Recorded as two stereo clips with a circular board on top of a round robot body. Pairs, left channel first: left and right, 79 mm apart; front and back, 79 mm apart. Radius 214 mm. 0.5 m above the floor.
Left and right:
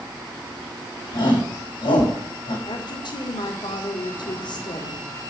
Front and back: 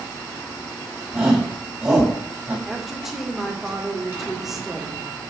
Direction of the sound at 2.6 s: 95° left.